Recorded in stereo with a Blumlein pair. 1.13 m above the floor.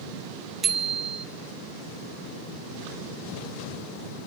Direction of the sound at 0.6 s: 20° right.